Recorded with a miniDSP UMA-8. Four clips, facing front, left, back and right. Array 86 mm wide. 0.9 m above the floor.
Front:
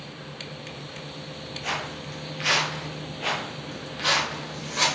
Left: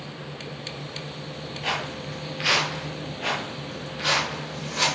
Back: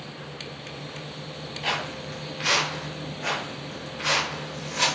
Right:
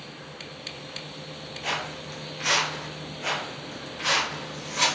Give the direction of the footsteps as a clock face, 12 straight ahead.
7 o'clock.